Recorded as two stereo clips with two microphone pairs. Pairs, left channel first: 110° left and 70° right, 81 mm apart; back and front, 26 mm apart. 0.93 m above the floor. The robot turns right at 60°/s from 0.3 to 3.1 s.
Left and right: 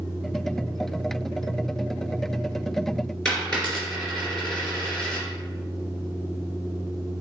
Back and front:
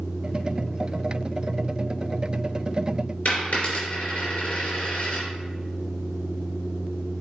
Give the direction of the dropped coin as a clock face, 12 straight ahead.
6 o'clock.